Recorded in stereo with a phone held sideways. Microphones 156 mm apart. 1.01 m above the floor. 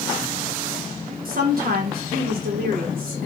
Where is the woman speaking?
70° right (ahead or behind), 0.9 m.